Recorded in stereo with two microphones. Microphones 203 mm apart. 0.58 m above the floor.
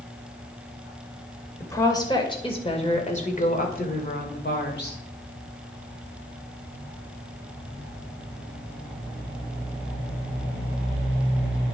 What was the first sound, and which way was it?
A woman speaking, 15° left (ahead or behind).